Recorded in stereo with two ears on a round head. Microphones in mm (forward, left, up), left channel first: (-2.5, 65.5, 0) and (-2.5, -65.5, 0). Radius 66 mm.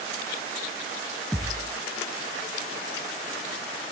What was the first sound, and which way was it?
A thud, 5° left (ahead or behind).